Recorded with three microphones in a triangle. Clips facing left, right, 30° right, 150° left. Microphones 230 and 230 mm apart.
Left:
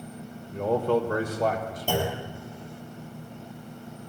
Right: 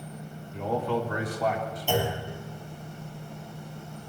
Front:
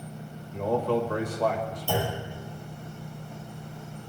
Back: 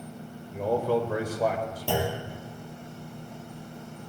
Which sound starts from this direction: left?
A man speaking, at 0.5 s.